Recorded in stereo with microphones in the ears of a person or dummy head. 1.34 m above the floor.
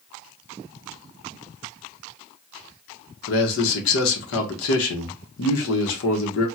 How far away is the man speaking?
About 0.9 m.